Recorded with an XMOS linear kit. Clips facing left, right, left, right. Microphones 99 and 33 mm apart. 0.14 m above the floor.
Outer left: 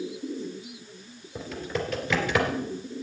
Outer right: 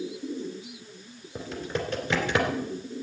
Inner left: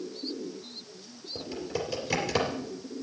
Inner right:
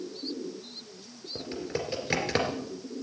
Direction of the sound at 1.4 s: 25° right (ahead or behind).